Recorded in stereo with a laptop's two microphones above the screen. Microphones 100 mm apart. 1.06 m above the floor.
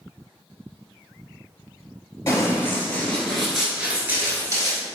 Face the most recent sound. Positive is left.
turn(degrees=-35)  # may be behind; listen again after turning